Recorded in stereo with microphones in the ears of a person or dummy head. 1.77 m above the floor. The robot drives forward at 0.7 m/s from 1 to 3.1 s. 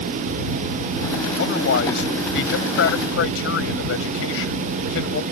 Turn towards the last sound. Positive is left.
turn(degrees=80)